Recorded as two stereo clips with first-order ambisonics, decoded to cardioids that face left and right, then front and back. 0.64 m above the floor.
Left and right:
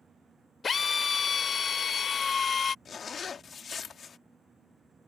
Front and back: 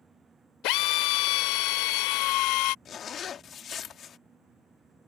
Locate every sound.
0.6 s a drill: 20° left
2.9 s a zipper: 40° left